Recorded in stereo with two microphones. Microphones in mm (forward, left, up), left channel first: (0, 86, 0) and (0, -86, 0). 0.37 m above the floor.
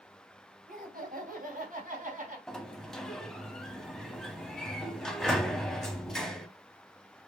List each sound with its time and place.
0.7 s laughter: 60° right (ahead or behind), 2 m; by 2.4 s 55° right (ahead or behind), 2.5 m
2.5 s a sliding door: 5° left (ahead or behind), 0.7 m